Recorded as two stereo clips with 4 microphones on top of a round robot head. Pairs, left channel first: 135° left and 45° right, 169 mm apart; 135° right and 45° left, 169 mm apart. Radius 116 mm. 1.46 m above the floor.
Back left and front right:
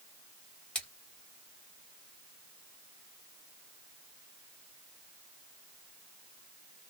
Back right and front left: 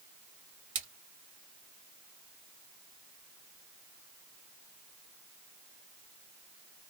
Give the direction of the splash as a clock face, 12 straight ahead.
10 o'clock.